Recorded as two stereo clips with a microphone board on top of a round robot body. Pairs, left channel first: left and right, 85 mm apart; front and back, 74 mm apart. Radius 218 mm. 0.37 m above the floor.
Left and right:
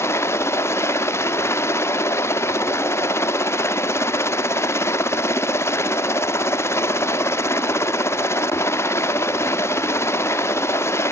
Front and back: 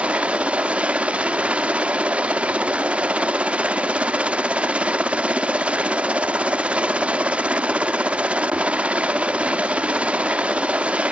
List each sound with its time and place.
0.0 s a helicopter: 120° left